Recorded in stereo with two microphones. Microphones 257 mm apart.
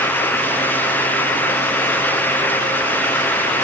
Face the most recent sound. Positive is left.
No sound to turn to.